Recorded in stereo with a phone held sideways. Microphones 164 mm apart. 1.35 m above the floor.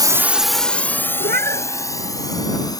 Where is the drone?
25° right (ahead or behind); by 2.8 s 20° left (ahead or behind).